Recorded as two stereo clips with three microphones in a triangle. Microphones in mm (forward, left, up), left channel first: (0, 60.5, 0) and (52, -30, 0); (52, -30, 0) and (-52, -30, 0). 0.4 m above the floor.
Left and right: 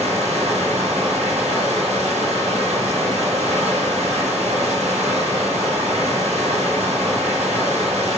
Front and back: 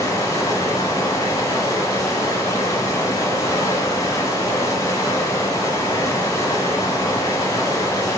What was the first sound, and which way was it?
Running water, 60° right.